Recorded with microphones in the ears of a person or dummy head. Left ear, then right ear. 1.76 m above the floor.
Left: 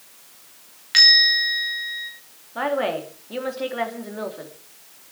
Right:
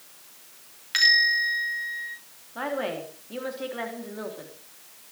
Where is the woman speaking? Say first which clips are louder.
Left 6 dB; 15° left (ahead or behind), 3.5 m.